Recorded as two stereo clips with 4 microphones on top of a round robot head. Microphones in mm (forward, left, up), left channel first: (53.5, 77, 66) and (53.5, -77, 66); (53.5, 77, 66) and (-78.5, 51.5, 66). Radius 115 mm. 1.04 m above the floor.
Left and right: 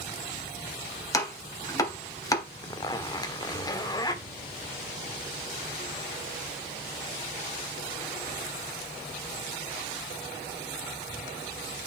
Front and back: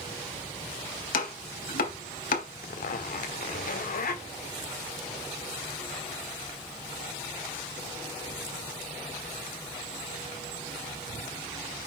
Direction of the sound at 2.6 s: 25° left.